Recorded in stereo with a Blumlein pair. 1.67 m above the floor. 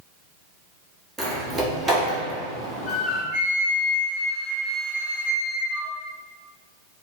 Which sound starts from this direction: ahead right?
A flute, at 3.3 s.